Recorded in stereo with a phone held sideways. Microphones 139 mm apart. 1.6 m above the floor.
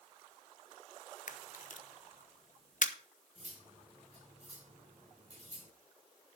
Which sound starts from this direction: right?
Cutlery clinking, at 3.4 s.